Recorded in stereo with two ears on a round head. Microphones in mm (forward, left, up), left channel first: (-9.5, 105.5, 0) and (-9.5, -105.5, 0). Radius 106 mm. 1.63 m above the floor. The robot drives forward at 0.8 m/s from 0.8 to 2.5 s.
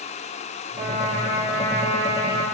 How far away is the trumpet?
About 5.5 m.